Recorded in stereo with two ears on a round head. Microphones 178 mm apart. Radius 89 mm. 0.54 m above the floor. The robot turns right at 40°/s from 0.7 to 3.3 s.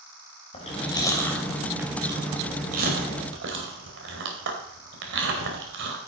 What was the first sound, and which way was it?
Chewing, 30° left (ahead or behind).